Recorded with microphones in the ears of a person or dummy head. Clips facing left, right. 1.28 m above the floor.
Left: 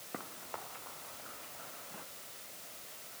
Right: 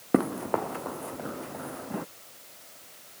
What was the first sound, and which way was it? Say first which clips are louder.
Running footsteps: right 22 dB; 75° right (ahead or behind).